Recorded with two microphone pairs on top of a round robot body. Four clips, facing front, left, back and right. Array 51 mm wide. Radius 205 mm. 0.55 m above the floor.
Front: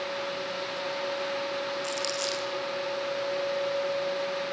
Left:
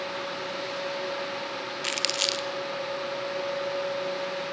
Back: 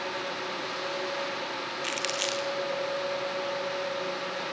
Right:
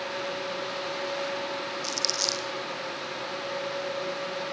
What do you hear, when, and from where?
1.8 s crumpling: 125° left, 0.9 m